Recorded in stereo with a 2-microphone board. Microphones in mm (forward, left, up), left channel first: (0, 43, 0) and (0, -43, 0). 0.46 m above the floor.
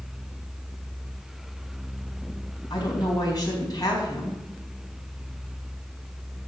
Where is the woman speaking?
45° left (ahead or behind), 4 m.